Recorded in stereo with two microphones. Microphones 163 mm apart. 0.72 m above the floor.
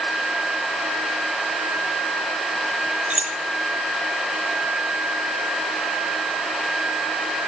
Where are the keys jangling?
45° right (ahead or behind), 0.7 m.